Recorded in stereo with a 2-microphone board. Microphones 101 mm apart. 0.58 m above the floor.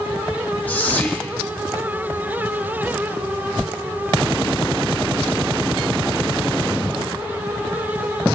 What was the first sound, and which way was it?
Whispering, 15° left (ahead or behind).